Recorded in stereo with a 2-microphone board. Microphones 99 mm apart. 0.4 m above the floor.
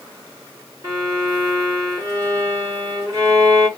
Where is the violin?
30° right (ahead or behind), 1.6 m.